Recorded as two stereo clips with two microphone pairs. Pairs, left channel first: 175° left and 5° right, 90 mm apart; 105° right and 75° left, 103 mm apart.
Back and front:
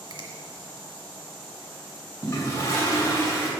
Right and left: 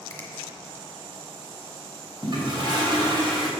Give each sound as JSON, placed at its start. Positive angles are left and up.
{"t": 0.1, "sound": "a finger snap", "azimuth_deg": -35, "distance_m": 1.9}
{"t": 2.2, "sound": "a toilet flushing", "azimuth_deg": 115, "distance_m": 3.0}